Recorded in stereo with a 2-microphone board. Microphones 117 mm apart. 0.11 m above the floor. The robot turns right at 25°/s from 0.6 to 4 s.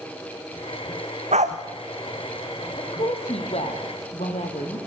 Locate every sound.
1.3 s a dog barking: 80° right, 2 m; by 1.6 s 85° right, 2 m
2.8 s a woman speaking: 50° left, 4 m; by 4.8 s 85° left, 4 m